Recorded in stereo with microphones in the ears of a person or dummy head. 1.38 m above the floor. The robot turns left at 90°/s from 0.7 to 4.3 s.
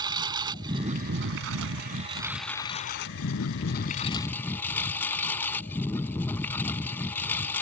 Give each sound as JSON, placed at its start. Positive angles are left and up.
{"t": 0.0, "sound": "a lawn mower", "azimuth_deg": -25}